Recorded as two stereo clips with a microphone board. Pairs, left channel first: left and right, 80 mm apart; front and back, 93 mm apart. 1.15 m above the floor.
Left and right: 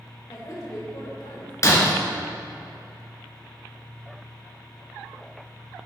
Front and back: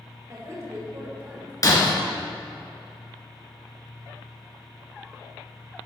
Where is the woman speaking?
130° left, 4 m; by 1.5 s 105° left, 3.5 m.